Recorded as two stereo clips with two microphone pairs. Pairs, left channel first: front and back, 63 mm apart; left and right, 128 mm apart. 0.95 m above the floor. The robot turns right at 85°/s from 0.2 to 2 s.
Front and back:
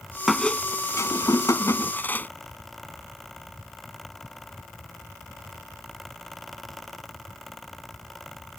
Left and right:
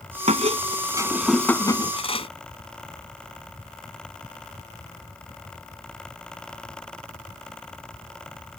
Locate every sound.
0.3 s a squeak: 90° right; by 2.3 s 55° left